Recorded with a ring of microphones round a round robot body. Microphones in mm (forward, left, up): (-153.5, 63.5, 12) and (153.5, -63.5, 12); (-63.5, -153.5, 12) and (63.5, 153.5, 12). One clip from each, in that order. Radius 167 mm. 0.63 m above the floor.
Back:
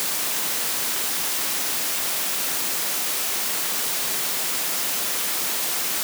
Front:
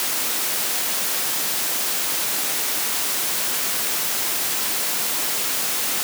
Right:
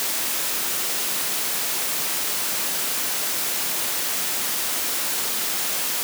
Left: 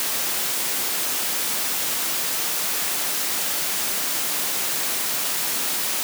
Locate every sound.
Only background noise.